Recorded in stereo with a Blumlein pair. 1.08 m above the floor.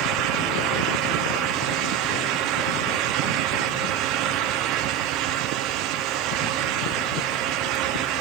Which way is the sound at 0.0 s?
35° right.